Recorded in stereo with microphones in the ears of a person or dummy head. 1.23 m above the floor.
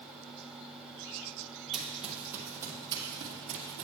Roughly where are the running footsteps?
Centre.